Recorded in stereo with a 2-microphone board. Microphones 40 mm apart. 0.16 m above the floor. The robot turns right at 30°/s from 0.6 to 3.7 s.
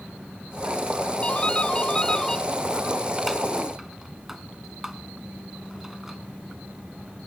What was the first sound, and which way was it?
A doorbell, 30° left (ahead or behind).